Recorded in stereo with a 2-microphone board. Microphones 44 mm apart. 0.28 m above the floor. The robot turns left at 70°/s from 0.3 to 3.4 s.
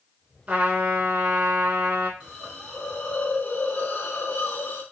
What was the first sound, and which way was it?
A trumpet, 30° right.